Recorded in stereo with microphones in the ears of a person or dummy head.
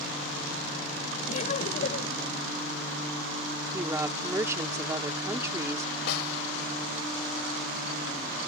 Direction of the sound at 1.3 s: 45° left (ahead or behind).